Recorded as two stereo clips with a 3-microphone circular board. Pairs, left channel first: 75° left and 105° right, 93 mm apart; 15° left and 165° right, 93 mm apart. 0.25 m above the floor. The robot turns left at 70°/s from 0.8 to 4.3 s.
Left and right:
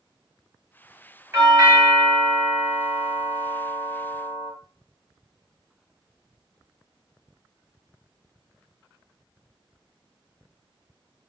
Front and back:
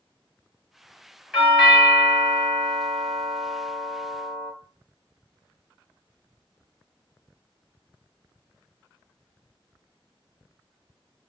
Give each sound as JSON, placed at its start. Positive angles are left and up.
{"t": 1.3, "sound": "a doorbell", "azimuth_deg": -85, "distance_m": 1.9}